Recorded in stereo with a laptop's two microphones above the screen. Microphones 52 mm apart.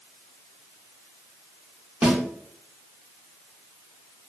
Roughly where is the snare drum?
Centre.